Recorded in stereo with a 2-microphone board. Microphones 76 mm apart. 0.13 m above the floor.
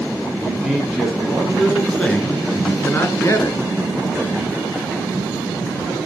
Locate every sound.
0.4 s a man speaking: 5° right (ahead or behind), 4 m; by 3.6 s 40° left (ahead or behind), 2 m